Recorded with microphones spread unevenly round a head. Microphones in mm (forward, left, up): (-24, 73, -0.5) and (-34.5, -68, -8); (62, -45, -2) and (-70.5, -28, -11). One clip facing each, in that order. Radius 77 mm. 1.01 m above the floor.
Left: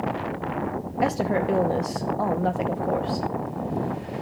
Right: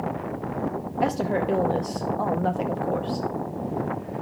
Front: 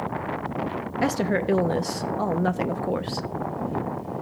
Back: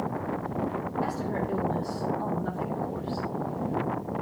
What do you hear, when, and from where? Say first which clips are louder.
1.0 s a woman speaking: left 1 dB, front 10 dB; straight ahead, 0.9 m